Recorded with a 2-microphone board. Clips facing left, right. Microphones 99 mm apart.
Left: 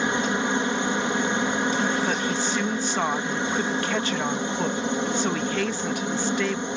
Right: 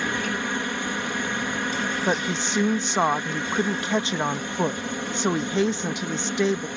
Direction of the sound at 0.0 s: 20° left (ahead or behind).